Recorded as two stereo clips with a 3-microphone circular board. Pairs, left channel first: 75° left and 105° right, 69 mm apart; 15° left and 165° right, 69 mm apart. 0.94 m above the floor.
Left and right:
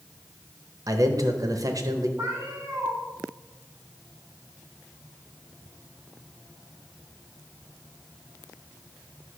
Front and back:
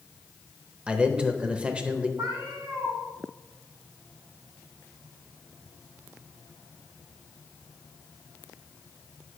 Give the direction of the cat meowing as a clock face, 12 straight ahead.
5 o'clock.